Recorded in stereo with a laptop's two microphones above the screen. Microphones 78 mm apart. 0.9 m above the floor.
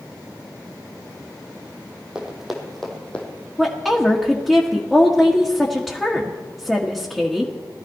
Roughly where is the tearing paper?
I don't hear tearing paper.